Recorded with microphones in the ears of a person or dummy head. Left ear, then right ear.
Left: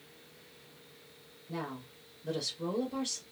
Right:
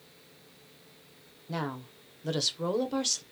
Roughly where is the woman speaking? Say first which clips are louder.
Right 5 dB; right.